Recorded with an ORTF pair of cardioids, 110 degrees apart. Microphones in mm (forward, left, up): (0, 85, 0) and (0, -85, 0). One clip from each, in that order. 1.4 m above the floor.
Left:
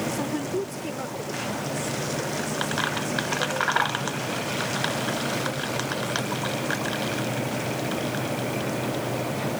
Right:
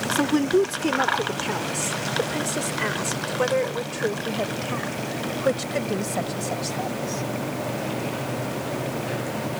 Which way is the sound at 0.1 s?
50° right.